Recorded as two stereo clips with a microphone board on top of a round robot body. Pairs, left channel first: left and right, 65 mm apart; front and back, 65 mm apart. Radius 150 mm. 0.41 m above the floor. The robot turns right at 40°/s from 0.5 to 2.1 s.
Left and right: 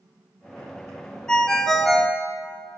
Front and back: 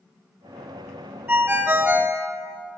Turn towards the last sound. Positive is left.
turn(degrees=-175)